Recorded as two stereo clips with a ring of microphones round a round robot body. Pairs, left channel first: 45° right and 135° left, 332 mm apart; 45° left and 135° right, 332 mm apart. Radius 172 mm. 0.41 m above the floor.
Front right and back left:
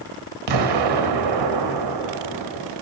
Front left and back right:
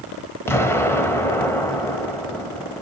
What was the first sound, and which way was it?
An explosion, 130° left.